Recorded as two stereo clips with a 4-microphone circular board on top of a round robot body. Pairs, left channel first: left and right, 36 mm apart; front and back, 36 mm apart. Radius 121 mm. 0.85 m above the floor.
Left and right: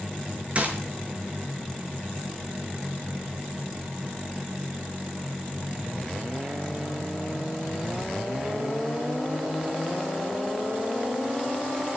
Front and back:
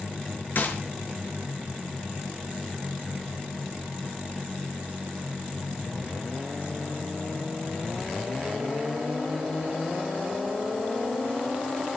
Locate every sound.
0.6 s a gunshot: 35° right, 4 m